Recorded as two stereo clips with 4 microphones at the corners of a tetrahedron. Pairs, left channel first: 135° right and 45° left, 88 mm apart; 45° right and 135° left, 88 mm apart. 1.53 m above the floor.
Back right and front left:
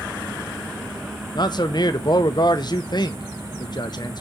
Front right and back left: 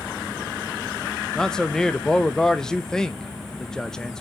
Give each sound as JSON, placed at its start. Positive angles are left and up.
{"t": 1.4, "sound": "a man speaking", "azimuth_deg": -125, "distance_m": 0.7}